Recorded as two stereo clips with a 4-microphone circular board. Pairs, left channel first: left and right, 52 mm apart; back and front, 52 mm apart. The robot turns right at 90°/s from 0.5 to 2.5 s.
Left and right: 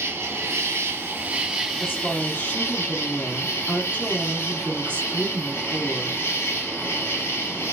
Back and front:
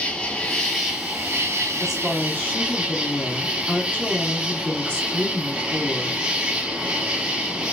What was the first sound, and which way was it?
An insect, 110° right.